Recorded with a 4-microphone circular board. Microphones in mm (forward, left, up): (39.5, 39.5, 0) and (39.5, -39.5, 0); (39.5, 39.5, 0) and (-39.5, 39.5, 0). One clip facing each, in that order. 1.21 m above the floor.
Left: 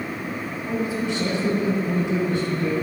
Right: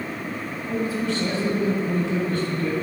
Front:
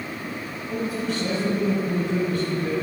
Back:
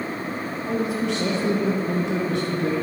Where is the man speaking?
160° left, 1.3 m.